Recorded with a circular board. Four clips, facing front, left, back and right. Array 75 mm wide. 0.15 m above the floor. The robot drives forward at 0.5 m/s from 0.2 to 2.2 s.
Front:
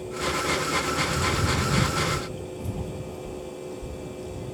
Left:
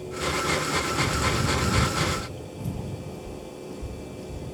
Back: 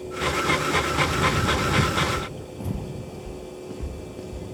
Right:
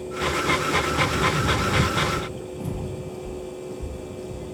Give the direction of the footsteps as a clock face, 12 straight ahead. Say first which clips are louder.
Right 5 dB, even; 4 o'clock.